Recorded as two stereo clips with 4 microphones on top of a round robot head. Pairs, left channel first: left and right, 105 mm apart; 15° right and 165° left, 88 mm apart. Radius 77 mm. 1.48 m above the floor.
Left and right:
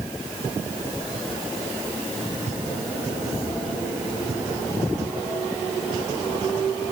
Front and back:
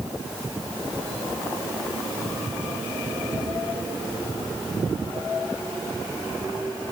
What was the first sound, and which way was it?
Only background noise.